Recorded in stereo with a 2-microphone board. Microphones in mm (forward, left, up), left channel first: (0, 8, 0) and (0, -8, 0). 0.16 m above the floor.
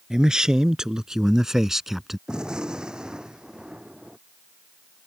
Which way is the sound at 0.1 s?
60° right (ahead or behind).